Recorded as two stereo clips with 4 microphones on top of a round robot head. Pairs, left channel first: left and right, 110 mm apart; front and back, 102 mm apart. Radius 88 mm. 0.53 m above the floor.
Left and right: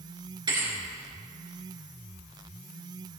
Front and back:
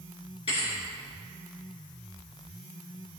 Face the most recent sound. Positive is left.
turn(degrees=-45)